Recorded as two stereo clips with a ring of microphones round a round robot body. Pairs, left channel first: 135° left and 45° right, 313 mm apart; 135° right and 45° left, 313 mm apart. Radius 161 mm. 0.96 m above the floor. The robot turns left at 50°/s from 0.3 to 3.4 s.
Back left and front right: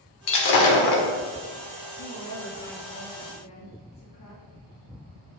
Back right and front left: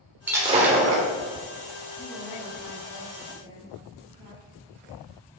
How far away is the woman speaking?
About 2 m.